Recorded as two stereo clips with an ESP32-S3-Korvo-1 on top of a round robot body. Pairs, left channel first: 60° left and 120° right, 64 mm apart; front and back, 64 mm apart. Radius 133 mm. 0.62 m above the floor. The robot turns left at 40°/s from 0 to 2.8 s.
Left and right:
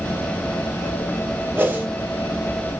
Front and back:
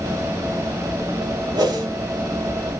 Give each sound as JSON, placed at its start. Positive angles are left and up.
{"t": 1.6, "sound": "a whoosh", "azimuth_deg": 180, "distance_m": 3.5}